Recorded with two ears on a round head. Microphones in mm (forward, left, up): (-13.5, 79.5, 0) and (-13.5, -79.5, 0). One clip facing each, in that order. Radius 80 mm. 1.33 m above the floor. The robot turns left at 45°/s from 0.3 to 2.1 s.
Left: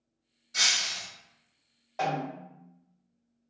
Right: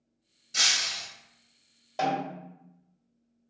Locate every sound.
0.5 s breaking glass: 30° right (ahead or behind), 1.2 m; by 1.1 s 25° right (ahead or behind), 1.2 m
2.0 s a snare drum: 35° right (ahead or behind), 1.7 m; by 2.5 s 30° right (ahead or behind), 1.7 m